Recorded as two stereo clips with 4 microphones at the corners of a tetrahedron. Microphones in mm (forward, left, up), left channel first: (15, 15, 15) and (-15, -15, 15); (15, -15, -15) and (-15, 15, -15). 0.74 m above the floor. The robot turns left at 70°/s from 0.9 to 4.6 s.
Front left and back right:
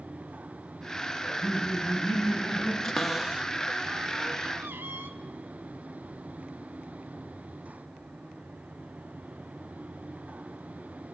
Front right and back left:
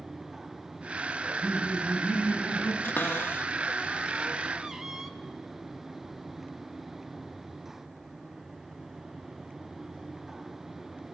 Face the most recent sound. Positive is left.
turn(degrees=-150)